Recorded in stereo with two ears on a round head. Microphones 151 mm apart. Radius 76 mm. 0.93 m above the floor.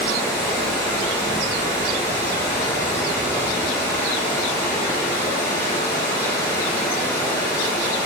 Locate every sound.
0.0 s running water: 25° left (ahead or behind), 6 m